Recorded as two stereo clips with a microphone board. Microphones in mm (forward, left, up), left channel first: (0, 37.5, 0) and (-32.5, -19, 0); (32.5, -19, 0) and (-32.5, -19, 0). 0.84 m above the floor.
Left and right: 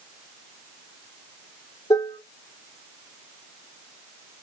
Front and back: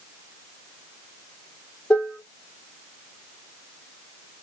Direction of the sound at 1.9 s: 70° left.